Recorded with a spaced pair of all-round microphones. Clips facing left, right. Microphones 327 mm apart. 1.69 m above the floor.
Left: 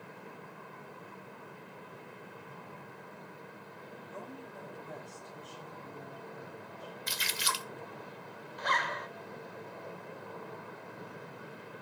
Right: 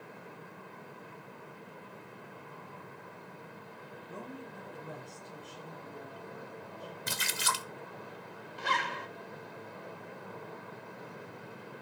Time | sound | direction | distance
4.1 | a woman speaking | 75° right (ahead or behind) | 10 m
7.1 | a splash | 60° right (ahead or behind) | 0.8 m
8.6 | a zipper | 40° right (ahead or behind) | 0.9 m